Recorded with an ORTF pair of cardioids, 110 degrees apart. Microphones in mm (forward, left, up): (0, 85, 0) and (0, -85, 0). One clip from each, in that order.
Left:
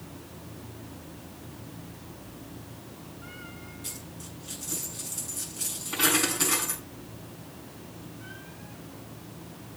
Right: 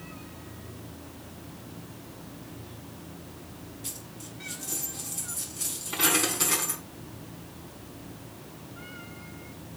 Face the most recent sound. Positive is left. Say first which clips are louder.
# right 1 dB
turn(degrees=0)